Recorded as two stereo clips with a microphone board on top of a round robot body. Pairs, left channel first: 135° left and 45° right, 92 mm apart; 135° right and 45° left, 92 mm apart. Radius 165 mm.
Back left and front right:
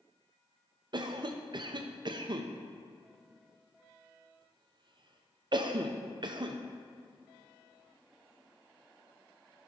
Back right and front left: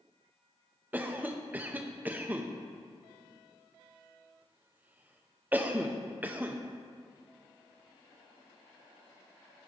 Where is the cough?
25° right, 0.8 m.